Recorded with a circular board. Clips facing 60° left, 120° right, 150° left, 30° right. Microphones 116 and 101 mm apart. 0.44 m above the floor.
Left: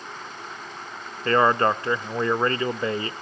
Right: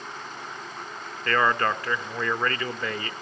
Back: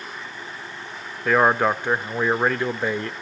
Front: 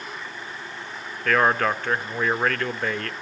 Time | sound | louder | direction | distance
1.2 | a man speaking | left 4 dB, back 2 dB | 90° left | 0.8 m